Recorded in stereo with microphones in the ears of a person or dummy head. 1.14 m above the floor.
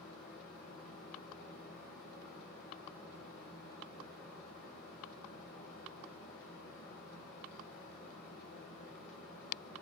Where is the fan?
45° left (ahead or behind), 3.5 m.